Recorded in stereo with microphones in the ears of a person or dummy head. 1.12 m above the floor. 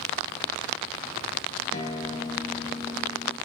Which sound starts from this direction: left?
A guitar, at 1.7 s.